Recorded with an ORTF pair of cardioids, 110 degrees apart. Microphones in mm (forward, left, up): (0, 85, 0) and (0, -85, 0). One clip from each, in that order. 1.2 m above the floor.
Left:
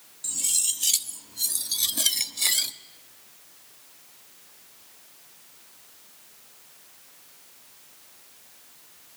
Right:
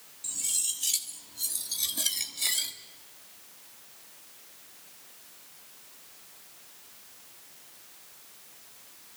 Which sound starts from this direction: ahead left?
Cutlery clinking, at 0.2 s.